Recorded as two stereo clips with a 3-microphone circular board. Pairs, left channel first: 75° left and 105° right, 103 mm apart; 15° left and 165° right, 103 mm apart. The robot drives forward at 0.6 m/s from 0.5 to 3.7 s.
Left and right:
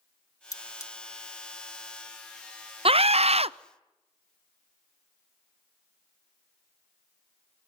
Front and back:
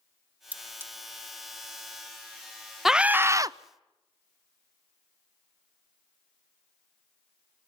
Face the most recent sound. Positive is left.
turn(degrees=-125)